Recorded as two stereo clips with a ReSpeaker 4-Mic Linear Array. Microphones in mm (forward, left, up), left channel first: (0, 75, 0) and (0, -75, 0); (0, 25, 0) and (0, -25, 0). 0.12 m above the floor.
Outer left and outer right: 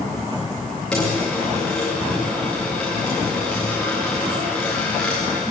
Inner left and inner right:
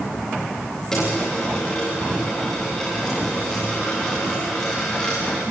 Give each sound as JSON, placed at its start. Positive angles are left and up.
{"t": 0.9, "sound": "a dropped coin", "side_deg": 5, "distance_m": 7.0}